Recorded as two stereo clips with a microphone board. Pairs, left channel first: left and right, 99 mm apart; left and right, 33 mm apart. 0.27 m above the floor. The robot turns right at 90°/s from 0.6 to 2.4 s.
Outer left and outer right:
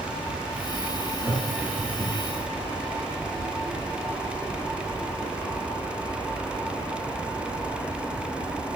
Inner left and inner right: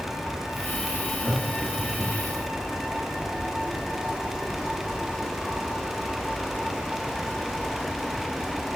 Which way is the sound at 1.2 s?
35° left (ahead or behind).